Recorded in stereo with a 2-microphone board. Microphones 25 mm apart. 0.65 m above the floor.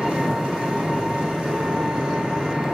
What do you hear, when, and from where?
0.0 s an engine running: 40° right (ahead or behind), 10 m